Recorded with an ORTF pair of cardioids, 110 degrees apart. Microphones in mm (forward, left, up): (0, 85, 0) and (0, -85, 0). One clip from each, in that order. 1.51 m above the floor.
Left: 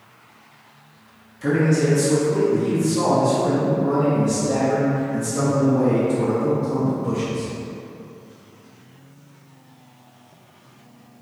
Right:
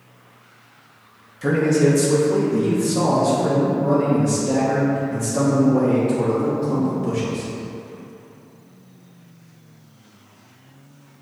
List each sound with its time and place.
1.4 s a man speaking: 20° right, 1.8 m; by 7.5 s 80° right, 4 m